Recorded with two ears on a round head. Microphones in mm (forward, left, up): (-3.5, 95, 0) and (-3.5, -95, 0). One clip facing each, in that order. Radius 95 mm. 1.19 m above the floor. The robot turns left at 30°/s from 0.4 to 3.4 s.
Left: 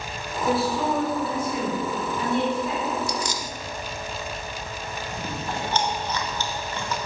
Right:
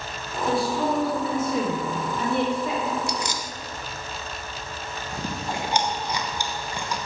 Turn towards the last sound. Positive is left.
turn(degrees=-10)  # may be behind; listen again after turning